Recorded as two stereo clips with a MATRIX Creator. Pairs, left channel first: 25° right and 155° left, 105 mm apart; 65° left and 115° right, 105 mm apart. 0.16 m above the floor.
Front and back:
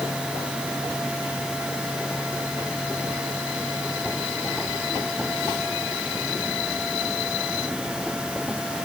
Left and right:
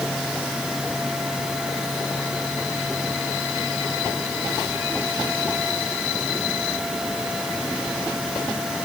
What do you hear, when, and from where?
Only background noise.